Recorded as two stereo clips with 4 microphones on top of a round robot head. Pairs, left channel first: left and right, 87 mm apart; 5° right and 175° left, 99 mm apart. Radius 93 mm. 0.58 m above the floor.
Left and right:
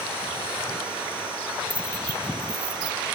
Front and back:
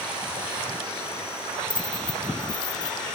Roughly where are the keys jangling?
Ahead left.